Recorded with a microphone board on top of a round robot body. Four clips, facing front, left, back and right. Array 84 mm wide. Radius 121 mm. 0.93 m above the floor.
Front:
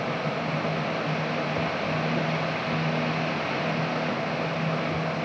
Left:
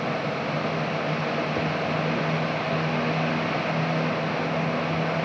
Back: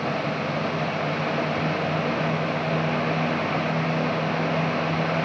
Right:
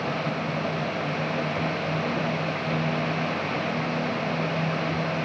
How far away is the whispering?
No whispering in this recording.